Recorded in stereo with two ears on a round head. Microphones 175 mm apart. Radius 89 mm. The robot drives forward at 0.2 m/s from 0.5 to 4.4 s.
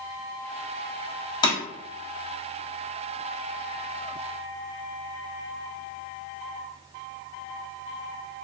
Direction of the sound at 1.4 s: 20° left (ahead or behind).